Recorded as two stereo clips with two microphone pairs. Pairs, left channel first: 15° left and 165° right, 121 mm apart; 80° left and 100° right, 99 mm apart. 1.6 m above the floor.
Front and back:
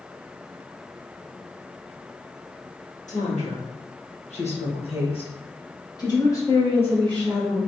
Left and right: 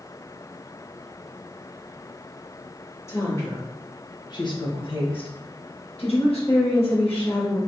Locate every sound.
3.1 s a woman speaking: 20° left, 1.8 m; by 7.6 s 100° left, 1.9 m